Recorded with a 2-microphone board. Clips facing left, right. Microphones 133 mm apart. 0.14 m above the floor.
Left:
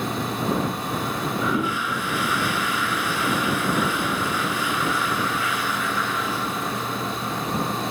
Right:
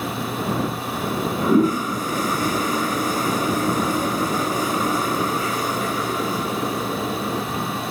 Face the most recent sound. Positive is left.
turn(degrees=-40)  # may be behind; listen again after turning